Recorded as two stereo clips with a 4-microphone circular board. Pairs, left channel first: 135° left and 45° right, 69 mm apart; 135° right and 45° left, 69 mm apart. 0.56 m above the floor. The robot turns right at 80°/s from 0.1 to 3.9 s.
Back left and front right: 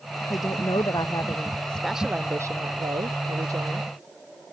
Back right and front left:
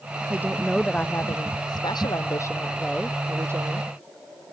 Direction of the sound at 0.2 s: 95° left.